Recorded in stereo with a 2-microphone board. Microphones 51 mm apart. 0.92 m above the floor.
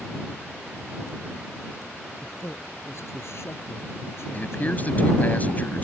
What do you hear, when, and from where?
2.2 s a man speaking: 60° left (ahead or behind); by 5.3 s 55° left (ahead or behind)
4.3 s a man speaking: 35° left (ahead or behind)